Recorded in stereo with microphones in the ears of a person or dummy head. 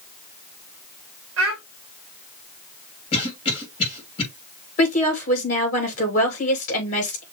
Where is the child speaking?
65° right (ahead or behind), 1.9 m.